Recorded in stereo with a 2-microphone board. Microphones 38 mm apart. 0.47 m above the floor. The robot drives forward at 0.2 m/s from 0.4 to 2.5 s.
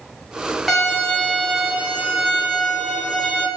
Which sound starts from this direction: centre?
A violin, at 0.7 s.